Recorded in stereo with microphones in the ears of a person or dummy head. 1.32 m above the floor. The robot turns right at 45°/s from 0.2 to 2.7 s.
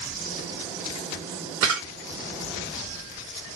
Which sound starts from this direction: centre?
A camera shutter, at 1.6 s.